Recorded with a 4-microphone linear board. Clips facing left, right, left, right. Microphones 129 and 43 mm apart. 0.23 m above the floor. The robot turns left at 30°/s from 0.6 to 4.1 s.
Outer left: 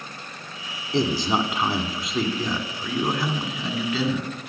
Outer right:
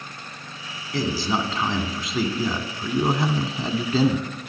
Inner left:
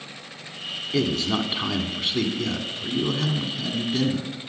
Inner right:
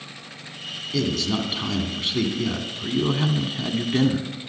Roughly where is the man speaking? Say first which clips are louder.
Outer left 2 dB, inner left 1 dB; ahead left.